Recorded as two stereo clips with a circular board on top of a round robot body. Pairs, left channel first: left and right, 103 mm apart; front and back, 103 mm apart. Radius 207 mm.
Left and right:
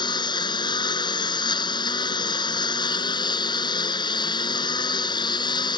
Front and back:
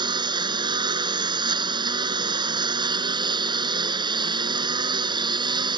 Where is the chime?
I don't hear a chime.